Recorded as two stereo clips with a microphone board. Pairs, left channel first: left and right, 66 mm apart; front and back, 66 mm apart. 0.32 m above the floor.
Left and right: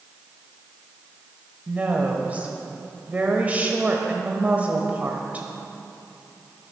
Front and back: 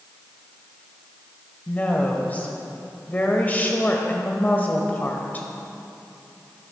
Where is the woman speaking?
40° right, 1.3 m.